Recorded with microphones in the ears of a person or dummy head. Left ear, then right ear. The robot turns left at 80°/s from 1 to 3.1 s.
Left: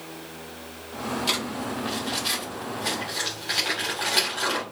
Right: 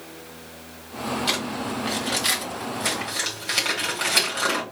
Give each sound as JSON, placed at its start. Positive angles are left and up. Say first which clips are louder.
{"t": 1.3, "sound": "crumpling", "louder": "even", "side_deg": 10, "distance_m": 3.0}